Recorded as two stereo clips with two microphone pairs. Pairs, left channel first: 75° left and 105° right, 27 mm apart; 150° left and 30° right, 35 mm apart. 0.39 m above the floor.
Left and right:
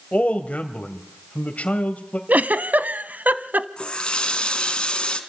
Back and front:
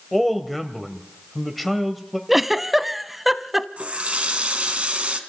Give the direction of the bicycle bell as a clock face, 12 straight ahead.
I don't hear a bicycle bell.